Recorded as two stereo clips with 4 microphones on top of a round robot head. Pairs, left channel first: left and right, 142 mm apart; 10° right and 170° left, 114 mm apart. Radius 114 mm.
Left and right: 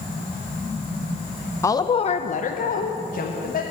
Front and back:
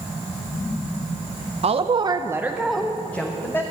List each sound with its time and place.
1.6 s a woman speaking: 160° left, 0.8 m; by 3.6 s 60° left, 1.7 m